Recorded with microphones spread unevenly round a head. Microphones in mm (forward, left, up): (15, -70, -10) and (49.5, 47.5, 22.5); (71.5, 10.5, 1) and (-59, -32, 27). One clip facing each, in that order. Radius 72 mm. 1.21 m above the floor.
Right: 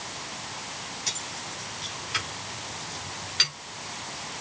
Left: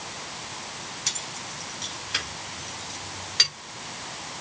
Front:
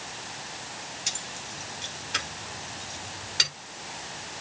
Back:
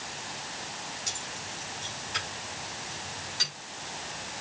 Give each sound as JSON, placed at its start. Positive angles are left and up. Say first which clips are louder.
{"t": 1.1, "sound": "keys jangling", "louder": "even, even", "azimuth_deg": 45, "distance_m": 6.5}